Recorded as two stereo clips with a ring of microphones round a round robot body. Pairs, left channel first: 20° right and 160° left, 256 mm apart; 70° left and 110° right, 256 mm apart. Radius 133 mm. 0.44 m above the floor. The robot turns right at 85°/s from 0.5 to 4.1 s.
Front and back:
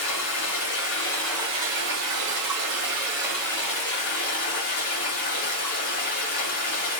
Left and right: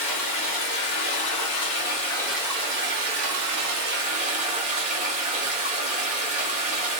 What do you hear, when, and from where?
0.0 s running water: straight ahead, 2 m; by 7.0 s 50° right, 2 m